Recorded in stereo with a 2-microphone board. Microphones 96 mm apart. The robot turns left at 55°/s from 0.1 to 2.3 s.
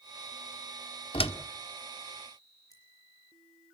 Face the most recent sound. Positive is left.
turn(degrees=40)  # may be behind; listen again after turning